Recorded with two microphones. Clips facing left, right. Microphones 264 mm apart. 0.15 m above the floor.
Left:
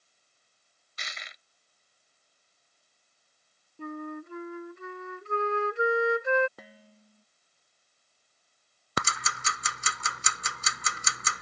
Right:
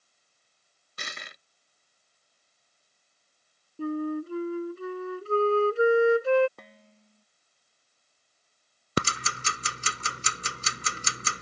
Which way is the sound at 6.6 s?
5° left (ahead or behind).